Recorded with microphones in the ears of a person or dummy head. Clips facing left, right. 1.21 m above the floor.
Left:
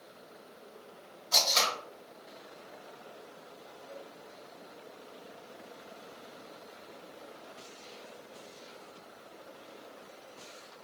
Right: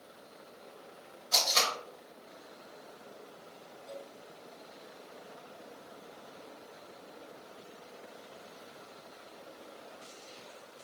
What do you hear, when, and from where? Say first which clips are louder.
1.3 s tape being pulled: left 1 dB; 15° right (ahead or behind), 1.4 m